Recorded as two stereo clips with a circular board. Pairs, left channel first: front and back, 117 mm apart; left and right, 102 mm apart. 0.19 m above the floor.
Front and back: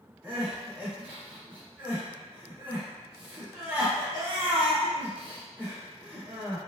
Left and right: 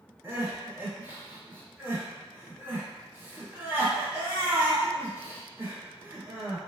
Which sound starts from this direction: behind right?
Crying, at 0.2 s.